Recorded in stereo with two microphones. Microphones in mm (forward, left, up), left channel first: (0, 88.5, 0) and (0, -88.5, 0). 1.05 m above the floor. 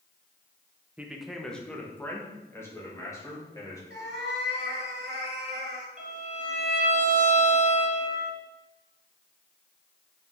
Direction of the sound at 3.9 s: 80° right.